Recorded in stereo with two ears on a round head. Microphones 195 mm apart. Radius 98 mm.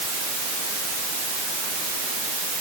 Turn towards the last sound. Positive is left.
No sound to turn to.